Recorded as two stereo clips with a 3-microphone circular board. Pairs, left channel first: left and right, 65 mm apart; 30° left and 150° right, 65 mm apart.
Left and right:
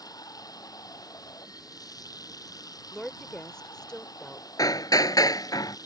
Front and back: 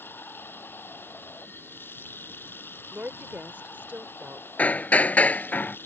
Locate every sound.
0.0 s running water: 85° left
2.9 s a woman speaking: 160° left
4.6 s hammering: 100° left